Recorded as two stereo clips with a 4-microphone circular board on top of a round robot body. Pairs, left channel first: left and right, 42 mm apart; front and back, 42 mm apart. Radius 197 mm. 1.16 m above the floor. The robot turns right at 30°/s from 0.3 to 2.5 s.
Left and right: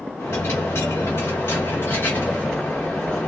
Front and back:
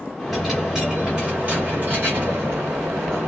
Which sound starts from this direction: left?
A dropped coin, at 0.2 s.